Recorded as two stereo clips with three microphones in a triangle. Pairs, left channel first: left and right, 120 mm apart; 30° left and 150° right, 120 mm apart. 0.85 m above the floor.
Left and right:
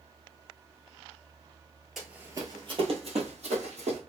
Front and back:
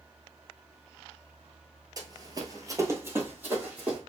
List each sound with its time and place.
2.0 s running footsteps: straight behind, 1.0 m; by 4.0 s 70° right, 2.5 m